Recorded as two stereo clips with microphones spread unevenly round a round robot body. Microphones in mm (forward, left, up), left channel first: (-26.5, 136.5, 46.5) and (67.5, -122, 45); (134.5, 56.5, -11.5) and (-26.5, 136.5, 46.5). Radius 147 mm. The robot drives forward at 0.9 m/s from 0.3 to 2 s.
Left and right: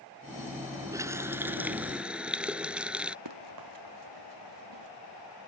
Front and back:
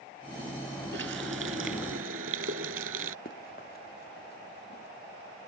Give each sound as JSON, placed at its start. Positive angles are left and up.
{"t": 0.9, "sound": "a running tap", "azimuth_deg": -150}
{"t": 3.2, "sound": "running footsteps", "azimuth_deg": -85}